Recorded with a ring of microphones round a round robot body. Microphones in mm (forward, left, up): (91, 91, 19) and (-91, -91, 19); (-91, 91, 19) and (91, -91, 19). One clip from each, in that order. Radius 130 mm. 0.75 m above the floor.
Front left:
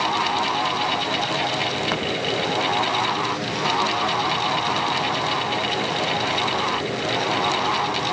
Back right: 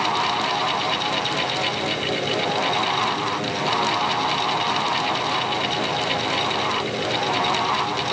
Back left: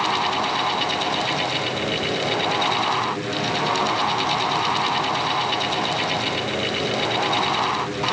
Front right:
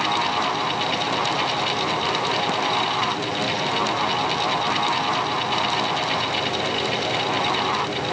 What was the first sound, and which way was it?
Only background noise.